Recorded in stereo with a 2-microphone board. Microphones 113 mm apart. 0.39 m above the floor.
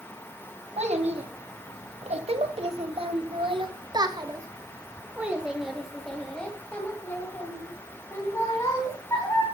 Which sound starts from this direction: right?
A child speaking, at 0.8 s.